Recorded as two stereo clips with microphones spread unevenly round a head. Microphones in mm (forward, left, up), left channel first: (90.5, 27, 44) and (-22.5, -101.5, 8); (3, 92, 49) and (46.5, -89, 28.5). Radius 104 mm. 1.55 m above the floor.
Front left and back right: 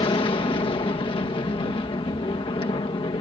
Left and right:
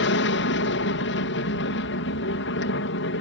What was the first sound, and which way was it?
An aircraft, 115° left.